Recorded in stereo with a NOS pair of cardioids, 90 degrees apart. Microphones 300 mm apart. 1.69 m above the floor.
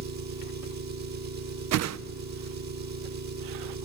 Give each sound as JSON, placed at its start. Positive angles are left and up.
{"t": 0.0, "sound": "an engine running", "azimuth_deg": -65, "distance_m": 3.0}
{"t": 1.7, "sound": "a whoosh", "azimuth_deg": -60, "distance_m": 0.6}